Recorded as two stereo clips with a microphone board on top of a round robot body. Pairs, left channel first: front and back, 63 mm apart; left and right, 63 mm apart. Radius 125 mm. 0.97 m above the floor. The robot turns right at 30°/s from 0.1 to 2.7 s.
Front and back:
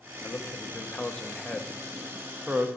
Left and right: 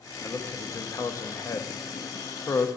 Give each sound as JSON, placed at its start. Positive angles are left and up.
{"t": 0.2, "sound": "a man speaking", "azimuth_deg": 45, "distance_m": 1.2}